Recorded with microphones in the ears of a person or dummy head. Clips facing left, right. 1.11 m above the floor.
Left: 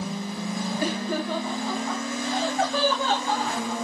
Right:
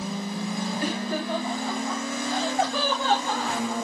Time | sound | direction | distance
0.8 | laughter | 50° left (ahead or behind) | 0.5 m